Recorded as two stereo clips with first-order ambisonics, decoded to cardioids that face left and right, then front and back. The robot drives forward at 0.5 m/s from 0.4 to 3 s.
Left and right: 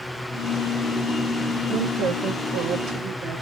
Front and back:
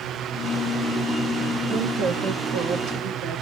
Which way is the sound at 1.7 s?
125° right.